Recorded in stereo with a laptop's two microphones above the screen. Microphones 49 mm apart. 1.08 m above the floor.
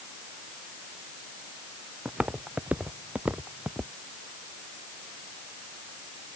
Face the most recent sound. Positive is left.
turn(degrees=-30)  # may be behind; listen again after turning